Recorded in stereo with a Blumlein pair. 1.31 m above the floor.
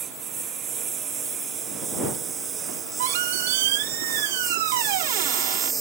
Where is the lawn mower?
25° right; by 5.8 s 15° right.